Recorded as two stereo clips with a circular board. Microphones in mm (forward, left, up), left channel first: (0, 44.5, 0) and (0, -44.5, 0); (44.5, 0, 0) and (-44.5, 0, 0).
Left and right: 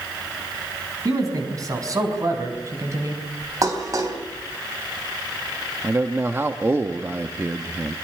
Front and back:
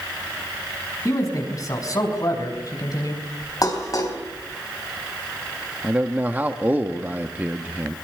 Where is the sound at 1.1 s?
45° right, 5.5 m; by 3.2 s 40° right, 4 m.